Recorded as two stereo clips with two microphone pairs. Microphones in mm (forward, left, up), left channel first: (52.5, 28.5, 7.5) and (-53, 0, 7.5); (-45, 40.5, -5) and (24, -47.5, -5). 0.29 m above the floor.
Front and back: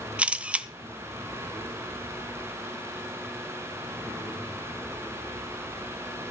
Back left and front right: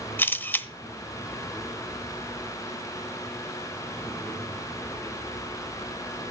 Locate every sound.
0.2 s a camera shutter: 140° left, 0.8 m